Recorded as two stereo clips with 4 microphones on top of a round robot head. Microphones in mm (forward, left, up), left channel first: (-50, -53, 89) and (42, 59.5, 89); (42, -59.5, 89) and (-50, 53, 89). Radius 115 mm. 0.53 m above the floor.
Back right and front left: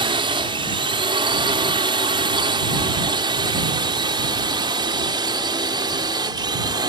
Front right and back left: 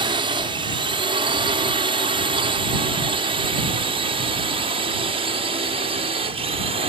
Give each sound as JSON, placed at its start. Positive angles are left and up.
{"t": 0.0, "sound": "a drone", "azimuth_deg": 90}